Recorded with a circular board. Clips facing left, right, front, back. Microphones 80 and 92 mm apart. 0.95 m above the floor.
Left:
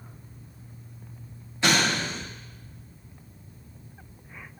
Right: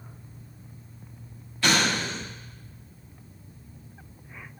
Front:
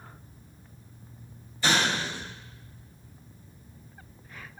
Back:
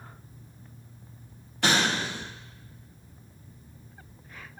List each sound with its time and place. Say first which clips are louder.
1.6 s an explosion: even, back 1 dB; 155° left, 1.0 m